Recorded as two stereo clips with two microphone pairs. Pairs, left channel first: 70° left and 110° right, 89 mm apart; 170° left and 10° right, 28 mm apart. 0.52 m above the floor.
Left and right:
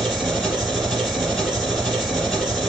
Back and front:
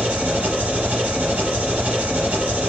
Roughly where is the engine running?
Ahead.